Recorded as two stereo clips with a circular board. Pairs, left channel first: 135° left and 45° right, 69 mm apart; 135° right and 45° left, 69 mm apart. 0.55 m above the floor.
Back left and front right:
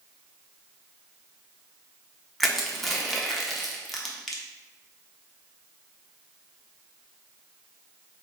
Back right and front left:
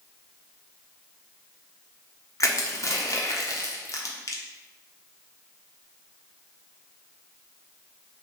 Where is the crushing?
140° right, 0.5 m.